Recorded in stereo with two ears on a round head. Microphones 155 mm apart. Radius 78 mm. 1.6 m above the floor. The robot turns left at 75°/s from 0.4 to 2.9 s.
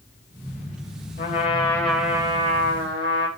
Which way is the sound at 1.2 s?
60° left.